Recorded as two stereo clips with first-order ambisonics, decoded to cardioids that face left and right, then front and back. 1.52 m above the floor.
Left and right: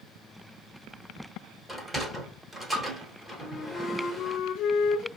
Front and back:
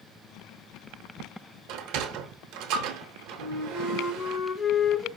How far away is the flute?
About 0.9 m.